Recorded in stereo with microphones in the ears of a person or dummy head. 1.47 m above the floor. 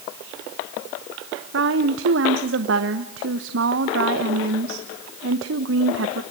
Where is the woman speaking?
75° right (ahead or behind), 1.1 m.